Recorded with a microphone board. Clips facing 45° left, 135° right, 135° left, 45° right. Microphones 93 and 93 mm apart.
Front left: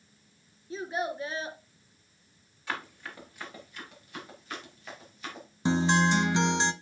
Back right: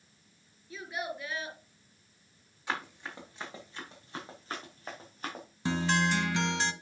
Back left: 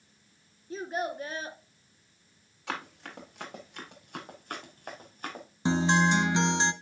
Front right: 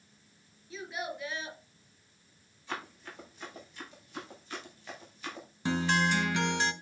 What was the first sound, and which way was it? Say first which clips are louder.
A child speaking: front left 5 dB, back left 6 dB; 95° left.